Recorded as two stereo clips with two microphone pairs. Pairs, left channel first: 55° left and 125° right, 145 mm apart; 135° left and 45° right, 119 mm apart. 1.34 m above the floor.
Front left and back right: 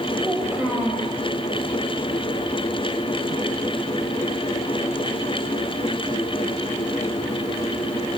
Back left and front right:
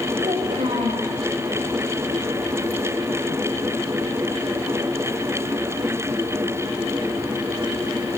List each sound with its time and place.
0.2 s a child speaking: 45° right, 5 m